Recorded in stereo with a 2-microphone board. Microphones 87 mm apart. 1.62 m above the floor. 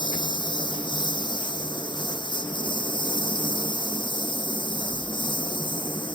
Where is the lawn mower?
60° left (ahead or behind); by 6.2 s 65° left (ahead or behind).